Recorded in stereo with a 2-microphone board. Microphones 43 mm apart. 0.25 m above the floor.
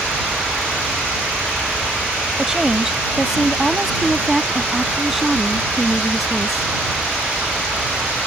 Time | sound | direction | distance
2.4 | a woman speaking | 15° right (ahead or behind) | ?